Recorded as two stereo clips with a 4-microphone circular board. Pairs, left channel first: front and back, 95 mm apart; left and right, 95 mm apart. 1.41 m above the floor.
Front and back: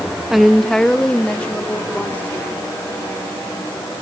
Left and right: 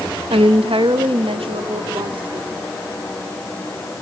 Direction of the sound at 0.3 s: 95° right.